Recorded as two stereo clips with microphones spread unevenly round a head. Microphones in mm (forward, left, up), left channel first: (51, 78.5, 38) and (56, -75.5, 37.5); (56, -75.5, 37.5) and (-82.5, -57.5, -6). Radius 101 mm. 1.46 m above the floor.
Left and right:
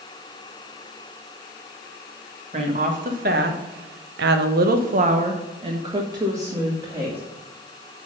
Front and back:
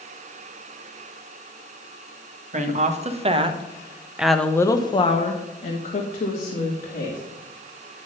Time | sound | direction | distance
2.5 | a woman speaking | 150° right | 1.6 m